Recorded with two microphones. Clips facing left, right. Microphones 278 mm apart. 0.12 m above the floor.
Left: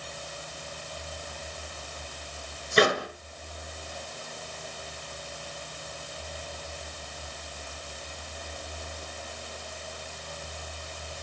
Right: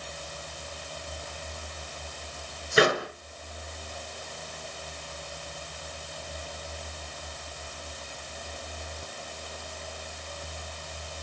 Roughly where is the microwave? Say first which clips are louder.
Even; centre.